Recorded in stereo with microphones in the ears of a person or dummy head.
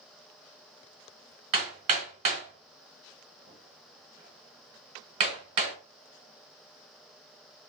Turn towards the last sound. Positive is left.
turn(degrees=-45)  # may be behind; listen again after turning